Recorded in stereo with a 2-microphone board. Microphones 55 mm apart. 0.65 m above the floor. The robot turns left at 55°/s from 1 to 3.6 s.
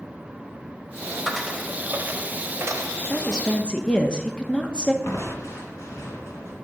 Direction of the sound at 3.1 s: 5° left (ahead or behind).